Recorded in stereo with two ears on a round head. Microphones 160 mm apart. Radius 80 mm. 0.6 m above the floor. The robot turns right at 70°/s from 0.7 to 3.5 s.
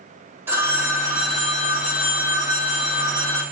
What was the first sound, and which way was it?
A phone ringing, 15° right.